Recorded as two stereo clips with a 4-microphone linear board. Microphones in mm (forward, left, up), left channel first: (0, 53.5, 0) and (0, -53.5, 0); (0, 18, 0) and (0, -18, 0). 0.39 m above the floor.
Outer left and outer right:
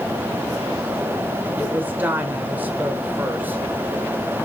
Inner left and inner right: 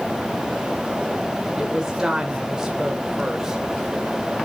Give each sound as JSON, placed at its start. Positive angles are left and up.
{"t": 1.6, "sound": "a woman speaking", "side_deg": -15, "distance_m": 1.1}